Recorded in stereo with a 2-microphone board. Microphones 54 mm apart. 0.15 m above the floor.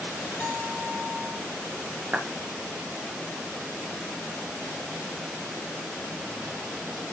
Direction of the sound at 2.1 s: 25° right (ahead or behind).